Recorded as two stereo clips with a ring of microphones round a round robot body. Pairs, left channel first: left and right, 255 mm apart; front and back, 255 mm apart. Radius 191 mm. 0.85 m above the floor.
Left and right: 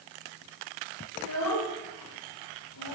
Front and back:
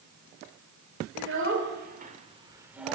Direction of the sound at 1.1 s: 145° left.